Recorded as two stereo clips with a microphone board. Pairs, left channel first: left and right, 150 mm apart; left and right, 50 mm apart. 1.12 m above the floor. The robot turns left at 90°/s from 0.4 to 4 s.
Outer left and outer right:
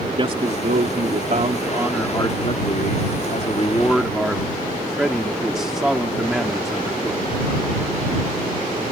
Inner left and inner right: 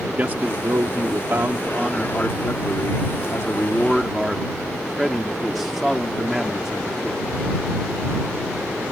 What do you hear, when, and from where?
0.2 s a man speaking: 35° right; by 7.2 s straight ahead